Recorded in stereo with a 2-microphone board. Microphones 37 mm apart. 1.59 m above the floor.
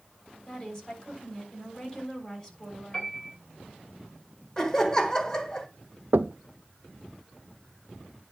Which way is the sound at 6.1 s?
75° right (ahead or behind).